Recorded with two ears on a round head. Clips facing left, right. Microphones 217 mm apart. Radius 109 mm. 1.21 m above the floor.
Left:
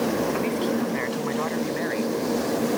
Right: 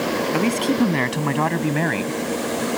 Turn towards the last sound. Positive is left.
turn(degrees=-75)  # may be behind; listen again after turning